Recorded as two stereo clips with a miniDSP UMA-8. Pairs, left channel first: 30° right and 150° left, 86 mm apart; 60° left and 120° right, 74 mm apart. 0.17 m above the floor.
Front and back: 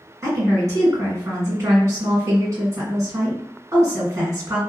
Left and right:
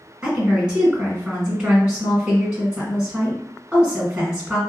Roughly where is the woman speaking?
Behind.